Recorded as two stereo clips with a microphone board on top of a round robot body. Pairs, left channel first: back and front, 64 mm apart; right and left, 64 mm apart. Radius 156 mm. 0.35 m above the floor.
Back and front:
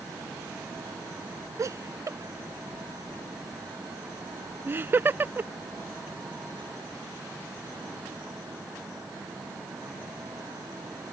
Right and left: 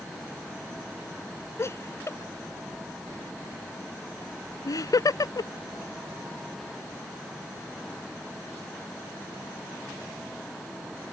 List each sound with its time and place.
1.6 s laughter: 40° right; by 5.5 s 65° right